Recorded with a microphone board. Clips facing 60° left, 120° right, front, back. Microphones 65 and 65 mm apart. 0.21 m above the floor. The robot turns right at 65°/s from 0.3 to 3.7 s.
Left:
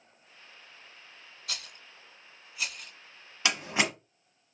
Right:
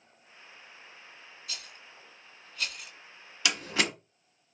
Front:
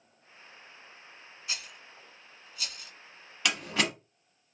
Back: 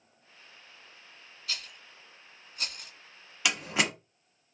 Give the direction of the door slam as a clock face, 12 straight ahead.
9 o'clock.